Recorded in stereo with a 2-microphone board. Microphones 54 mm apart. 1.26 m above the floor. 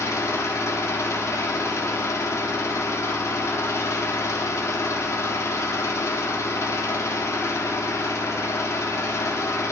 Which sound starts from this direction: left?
An engine running, at 0.0 s.